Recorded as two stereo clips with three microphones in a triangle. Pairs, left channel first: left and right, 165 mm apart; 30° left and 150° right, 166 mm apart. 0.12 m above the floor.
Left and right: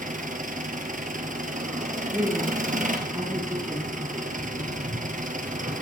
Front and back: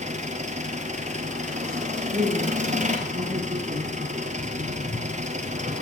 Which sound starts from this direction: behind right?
An engine running, at 0.0 s.